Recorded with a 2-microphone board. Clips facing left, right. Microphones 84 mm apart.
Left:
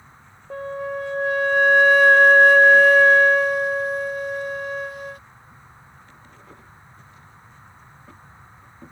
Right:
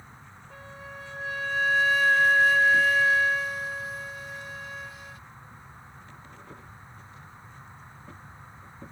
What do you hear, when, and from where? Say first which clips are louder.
0.5 s a flute: left 16 dB; 55° left (ahead or behind)